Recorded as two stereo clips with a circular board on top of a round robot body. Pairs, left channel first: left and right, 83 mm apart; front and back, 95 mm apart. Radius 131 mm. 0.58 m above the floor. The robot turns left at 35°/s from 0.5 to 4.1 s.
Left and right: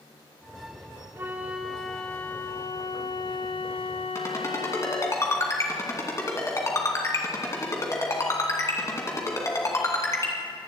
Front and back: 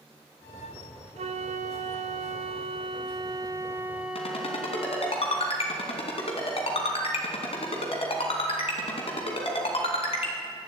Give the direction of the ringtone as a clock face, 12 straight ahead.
11 o'clock.